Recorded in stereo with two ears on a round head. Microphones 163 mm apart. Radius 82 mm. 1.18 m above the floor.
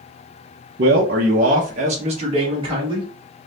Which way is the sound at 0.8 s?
60° right (ahead or behind).